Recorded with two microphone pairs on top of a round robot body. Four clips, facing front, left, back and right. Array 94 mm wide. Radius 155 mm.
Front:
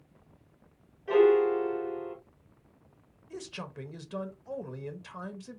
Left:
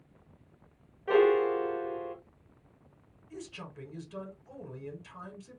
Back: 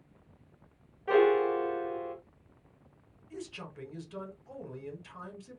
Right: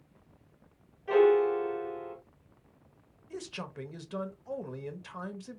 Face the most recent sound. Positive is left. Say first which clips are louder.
# right 4 dB, front 2 dB
turn(degrees=-55)